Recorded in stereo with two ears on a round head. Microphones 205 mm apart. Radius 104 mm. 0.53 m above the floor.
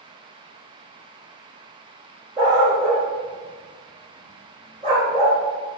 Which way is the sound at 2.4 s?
25° right (ahead or behind).